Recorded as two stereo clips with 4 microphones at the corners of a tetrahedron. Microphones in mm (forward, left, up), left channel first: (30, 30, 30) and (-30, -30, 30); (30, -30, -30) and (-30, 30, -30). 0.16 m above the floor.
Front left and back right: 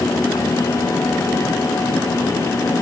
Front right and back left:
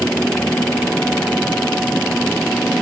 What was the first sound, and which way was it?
Only background noise.